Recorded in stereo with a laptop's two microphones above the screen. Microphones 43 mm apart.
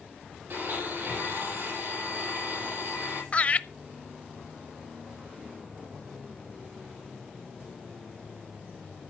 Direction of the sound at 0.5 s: 45° right (ahead or behind).